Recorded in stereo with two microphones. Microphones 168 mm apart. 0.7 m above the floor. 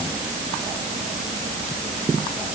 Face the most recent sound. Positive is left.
No sound to turn to.